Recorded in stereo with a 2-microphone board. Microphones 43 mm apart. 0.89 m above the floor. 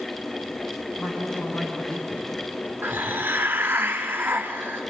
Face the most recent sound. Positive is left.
turn(degrees=-55)  # may be behind; listen again after turning